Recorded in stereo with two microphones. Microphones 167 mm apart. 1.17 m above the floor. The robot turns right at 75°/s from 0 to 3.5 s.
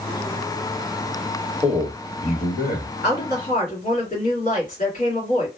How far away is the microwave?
I don't hear a microwave.